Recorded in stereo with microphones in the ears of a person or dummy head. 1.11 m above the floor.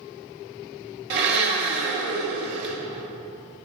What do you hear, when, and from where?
1.1 s a blender: 65° right (ahead or behind), 2 m